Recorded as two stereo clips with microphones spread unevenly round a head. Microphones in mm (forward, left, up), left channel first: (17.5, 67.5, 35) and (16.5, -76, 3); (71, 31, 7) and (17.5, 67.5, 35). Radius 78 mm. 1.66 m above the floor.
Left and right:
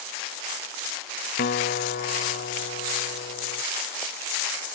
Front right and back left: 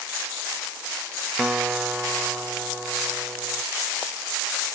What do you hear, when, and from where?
1.4 s a guitar: 70° left